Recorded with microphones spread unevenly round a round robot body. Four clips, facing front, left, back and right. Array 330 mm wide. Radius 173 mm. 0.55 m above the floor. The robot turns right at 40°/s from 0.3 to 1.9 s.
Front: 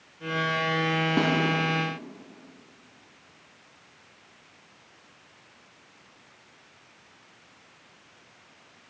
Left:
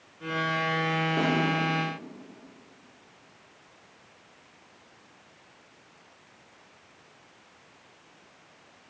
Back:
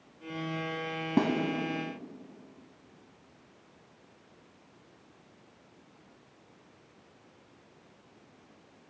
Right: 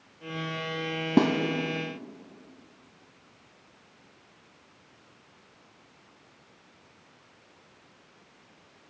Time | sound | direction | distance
1.2 | a snare drum | 95° right | 0.9 m